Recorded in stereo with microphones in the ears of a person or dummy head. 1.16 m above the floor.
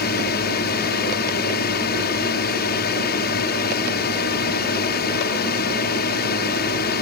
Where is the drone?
45° left (ahead or behind).